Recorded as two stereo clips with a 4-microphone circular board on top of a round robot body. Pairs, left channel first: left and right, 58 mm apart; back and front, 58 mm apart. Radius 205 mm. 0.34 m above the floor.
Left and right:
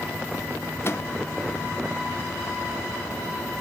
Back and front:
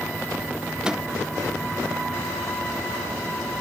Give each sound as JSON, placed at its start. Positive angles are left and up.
{"t": 0.8, "sound": "a microwave", "azimuth_deg": 75, "distance_m": 1.5}